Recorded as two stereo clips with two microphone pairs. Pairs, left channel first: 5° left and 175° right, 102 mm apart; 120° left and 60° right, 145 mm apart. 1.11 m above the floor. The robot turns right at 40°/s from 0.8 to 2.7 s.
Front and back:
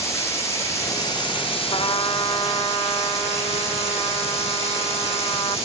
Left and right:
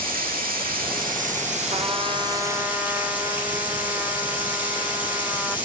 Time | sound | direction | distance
0.0 | running water | 55° right | 7 m
1.7 | a trumpet | 30° right | 2.5 m